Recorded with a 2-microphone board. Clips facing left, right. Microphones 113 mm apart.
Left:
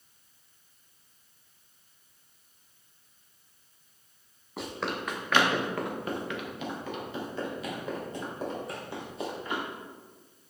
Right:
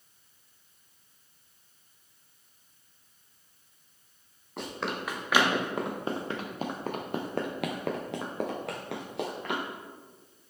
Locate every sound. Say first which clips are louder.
4.6 s running footsteps: even; centre (ahead or behind), 2 m; by 9.6 s 75° right (ahead or behind), 2.5 m